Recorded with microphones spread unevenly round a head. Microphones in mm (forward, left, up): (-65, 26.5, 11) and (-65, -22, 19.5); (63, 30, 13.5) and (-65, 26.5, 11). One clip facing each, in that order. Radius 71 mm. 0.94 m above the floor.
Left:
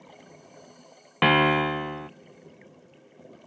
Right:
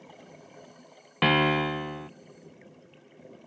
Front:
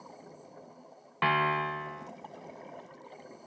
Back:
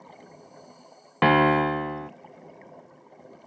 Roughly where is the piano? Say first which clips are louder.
Left 3 dB, back 10 dB; behind.